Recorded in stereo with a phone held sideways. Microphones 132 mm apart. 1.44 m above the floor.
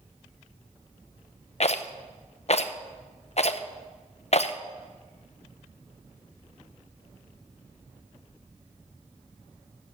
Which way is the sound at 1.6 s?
55° left (ahead or behind).